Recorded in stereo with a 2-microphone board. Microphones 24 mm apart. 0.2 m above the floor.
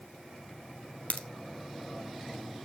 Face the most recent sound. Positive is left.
turn(degrees=80)